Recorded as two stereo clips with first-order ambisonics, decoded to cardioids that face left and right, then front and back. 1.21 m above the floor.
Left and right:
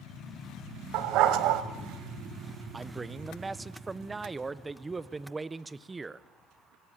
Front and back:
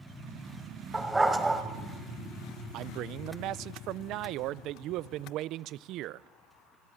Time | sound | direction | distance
0.9 | a dog barking | 100° right | 1.4 m
2.7 | a man speaking | 165° right | 0.6 m